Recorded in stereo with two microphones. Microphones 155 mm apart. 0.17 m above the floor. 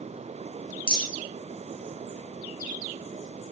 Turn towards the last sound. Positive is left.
turn(degrees=70)  # may be behind; listen again after turning